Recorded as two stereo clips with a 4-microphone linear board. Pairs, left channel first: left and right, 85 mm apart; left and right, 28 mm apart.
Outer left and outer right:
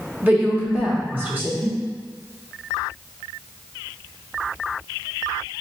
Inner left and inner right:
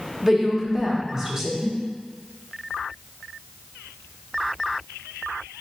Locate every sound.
0.2 s a woman speaking: 25° right (ahead or behind), 1.0 m